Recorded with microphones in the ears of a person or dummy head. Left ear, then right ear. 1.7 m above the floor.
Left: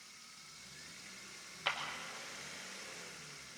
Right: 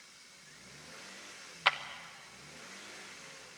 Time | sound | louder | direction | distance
1.6 | a clap | right 8 dB | 25° right (ahead or behind) | 0.9 m